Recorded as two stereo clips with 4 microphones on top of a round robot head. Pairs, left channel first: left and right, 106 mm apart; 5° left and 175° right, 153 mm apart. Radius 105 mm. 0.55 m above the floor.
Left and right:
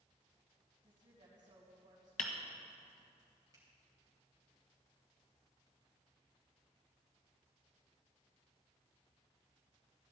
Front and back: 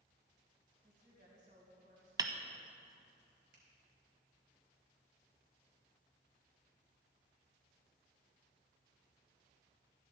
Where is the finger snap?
150° right, 3.5 m.